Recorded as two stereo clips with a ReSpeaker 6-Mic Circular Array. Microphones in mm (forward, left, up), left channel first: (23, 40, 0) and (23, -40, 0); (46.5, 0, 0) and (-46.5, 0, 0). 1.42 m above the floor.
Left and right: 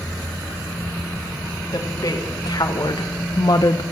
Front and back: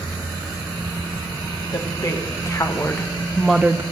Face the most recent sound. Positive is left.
turn(degrees=125)